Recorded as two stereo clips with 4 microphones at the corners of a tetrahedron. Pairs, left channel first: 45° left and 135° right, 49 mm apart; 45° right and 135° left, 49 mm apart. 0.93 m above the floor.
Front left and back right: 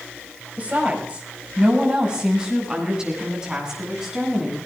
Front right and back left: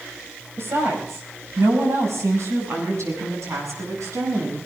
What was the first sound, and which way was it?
A woman speaking, 165° left.